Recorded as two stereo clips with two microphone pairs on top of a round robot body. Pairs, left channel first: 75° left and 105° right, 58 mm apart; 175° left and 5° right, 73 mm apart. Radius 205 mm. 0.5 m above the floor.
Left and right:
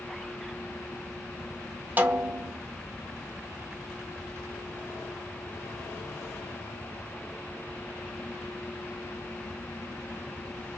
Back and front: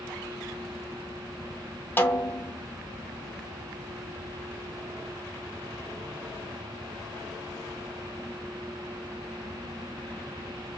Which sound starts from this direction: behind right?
A snare drum, at 2.0 s.